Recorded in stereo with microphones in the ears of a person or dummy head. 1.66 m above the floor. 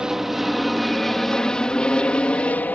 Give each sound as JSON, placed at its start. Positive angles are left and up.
{"t": 0.0, "sound": "an aircraft", "side_deg": 0}